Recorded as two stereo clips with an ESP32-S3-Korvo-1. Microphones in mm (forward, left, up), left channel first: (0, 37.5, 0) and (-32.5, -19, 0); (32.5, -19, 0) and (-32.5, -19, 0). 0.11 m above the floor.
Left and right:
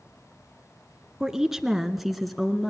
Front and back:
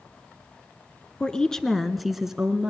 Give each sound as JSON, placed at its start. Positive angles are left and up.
{"t": 1.2, "sound": "a woman speaking", "azimuth_deg": -50, "distance_m": 1.1}